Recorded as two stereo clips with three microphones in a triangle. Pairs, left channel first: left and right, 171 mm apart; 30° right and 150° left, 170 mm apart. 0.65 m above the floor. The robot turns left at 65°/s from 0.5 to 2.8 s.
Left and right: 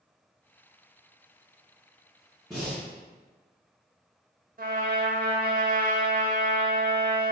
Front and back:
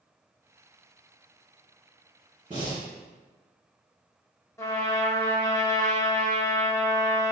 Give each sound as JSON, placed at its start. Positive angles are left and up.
{"t": 2.5, "sound": "breathing", "azimuth_deg": 180, "distance_m": 1.8}
{"t": 4.6, "sound": "a trumpet", "azimuth_deg": -100, "distance_m": 0.6}